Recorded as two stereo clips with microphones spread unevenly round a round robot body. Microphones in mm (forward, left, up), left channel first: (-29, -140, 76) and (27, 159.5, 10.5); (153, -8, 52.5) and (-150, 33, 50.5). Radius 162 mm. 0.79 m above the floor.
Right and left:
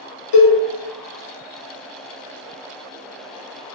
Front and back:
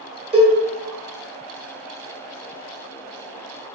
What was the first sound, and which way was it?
A cowbell, 115° right.